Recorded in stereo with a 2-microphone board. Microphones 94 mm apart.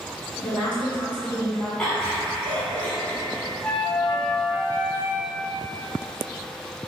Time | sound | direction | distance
0.3 | a woman speaking | 10° left (ahead or behind) | 1.6 m
1.8 | laughter | 15° left (ahead or behind) | 1.0 m
3.6 | a flute | 15° left (ahead or behind) | 0.8 m